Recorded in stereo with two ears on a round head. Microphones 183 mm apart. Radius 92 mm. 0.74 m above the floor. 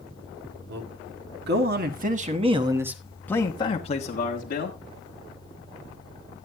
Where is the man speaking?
70° right (ahead or behind), 2 m; by 4.8 s 50° left (ahead or behind), 1.8 m.